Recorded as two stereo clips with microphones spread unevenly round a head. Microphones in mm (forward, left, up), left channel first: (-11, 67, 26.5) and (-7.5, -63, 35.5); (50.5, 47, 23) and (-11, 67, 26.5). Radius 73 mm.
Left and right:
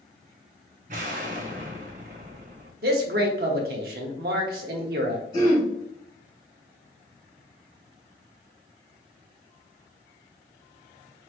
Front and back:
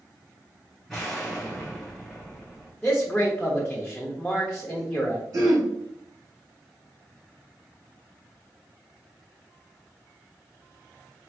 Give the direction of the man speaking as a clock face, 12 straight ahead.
3 o'clock.